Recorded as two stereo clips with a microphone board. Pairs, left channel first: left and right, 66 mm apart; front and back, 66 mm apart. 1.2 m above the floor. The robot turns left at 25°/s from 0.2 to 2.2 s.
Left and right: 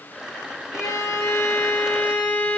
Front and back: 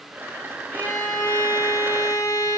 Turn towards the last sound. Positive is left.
turn(degrees=30)